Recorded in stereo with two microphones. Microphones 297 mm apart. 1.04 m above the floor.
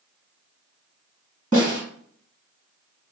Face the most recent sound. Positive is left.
turn(degrees=-25)  # may be behind; listen again after turning